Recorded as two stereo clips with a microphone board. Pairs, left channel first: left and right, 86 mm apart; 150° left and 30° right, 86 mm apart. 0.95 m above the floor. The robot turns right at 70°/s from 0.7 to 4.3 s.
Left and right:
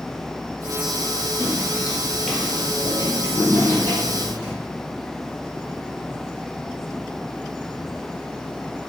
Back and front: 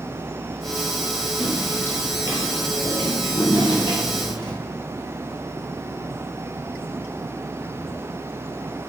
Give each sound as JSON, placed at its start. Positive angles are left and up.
{"t": 1.4, "sound": "footsteps", "azimuth_deg": -100, "distance_m": 1.0}